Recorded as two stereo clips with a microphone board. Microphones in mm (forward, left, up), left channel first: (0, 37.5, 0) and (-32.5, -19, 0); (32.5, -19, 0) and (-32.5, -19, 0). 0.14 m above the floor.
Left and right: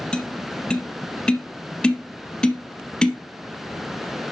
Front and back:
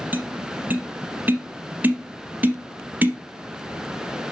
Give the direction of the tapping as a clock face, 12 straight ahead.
8 o'clock.